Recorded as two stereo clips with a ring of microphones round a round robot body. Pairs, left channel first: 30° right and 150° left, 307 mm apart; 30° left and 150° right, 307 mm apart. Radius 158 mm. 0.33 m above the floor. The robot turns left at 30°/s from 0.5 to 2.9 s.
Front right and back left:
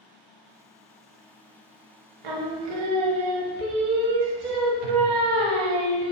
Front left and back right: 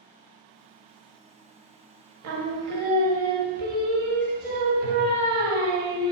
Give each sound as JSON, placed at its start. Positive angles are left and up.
{"t": 2.2, "sound": "singing", "azimuth_deg": 165, "distance_m": 0.6}